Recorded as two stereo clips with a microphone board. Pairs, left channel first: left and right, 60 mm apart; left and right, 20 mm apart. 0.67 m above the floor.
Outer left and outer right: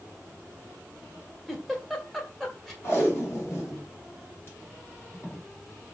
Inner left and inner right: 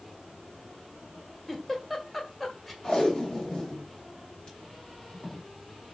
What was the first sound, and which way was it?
A giggle, 5° left (ahead or behind).